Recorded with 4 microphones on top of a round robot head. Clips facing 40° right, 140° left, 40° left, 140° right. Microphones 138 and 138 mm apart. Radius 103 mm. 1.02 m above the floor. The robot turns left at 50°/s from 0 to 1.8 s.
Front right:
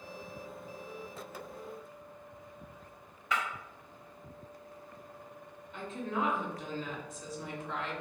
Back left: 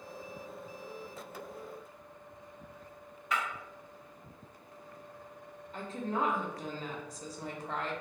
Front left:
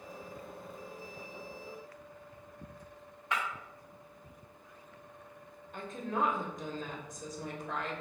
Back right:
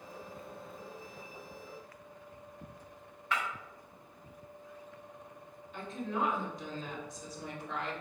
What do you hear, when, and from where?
3.3 s breaking glass: 35° right, 0.7 m
5.7 s a woman speaking: 85° left, 0.7 m